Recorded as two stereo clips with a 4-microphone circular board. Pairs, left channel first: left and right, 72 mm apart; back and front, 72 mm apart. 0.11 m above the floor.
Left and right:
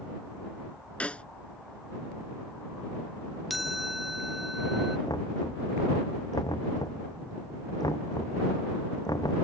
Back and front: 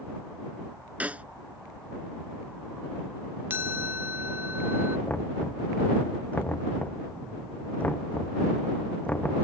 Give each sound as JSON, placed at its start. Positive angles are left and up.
{"t": 1.0, "sound": "a snare drum", "azimuth_deg": 40}
{"t": 3.5, "sound": "a chime", "azimuth_deg": 0}
{"t": 5.1, "sound": "knocking", "azimuth_deg": 110}